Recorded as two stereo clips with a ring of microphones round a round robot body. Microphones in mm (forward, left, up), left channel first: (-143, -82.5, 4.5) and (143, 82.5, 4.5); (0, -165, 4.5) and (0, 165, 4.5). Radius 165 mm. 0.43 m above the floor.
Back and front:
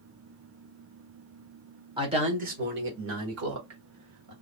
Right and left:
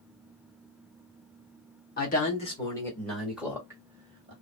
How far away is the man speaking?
About 1.2 m.